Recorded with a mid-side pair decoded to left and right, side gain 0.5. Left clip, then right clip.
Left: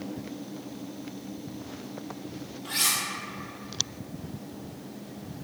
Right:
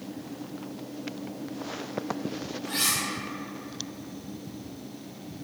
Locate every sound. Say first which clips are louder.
2.6 s cutlery clinking: left 1 dB; 40° left, 1.2 m